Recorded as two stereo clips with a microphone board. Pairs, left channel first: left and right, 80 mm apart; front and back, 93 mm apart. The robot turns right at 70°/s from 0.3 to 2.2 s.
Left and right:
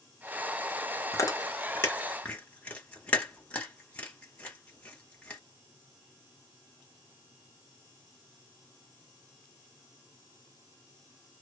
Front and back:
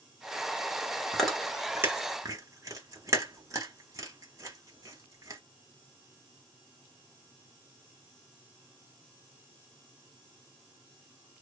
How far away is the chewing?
About 1.2 m.